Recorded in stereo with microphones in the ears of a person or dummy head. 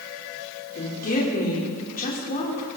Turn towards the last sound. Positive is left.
turn(degrees=40)  # may be behind; listen again after turning